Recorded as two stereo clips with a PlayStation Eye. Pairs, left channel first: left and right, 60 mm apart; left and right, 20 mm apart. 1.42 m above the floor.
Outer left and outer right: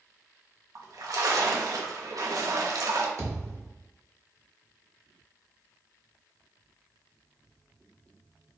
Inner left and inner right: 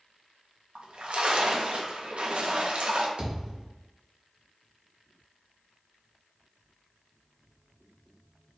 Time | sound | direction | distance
0.8 | a splash | 70° right (ahead or behind) | 0.8 m
3.2 | a thud | 65° right (ahead or behind) | 2 m